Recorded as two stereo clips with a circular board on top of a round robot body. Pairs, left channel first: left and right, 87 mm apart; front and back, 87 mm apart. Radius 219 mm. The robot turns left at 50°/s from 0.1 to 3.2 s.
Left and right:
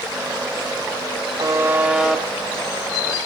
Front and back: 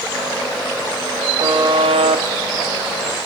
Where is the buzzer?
140° right, 0.6 m; by 2.2 s 175° left, 0.6 m.